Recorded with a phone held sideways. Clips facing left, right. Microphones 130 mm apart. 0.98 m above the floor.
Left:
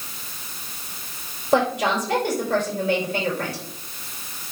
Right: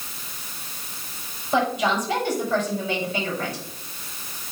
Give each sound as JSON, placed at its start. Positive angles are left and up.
{"t": 1.5, "sound": "a woman speaking", "side_deg": 75, "distance_m": 4.5}